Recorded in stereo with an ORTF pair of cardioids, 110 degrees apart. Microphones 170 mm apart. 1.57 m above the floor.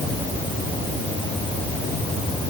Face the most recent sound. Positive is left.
No sound to turn to.